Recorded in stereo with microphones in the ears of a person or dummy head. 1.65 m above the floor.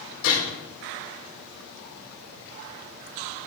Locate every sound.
0.2 s a gunshot: 80° left, 6.5 m